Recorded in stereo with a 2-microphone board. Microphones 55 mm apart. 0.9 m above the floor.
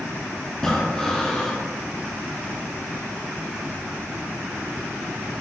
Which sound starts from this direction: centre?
Breathing, at 0.6 s.